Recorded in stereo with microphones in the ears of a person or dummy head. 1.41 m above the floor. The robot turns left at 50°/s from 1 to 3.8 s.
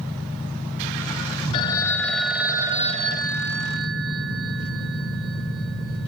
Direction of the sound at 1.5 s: 35° left.